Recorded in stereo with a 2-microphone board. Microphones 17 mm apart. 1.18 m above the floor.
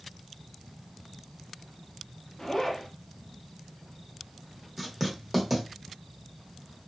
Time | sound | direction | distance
2.4 | a zipper | 25° left (ahead or behind) | 0.8 m
4.8 | writing | 15° right (ahead or behind) | 0.9 m